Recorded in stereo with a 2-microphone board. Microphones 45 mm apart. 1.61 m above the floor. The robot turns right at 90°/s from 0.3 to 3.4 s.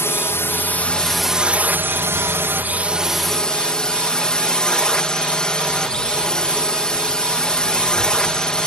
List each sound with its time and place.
0.0 s a drone: 100° left; by 8.7 s 20° left